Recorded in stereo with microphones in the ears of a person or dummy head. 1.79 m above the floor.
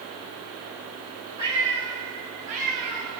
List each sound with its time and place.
1.4 s a cat meowing: 20° right (ahead or behind), 2 m; by 3.1 s 45° right (ahead or behind), 1.9 m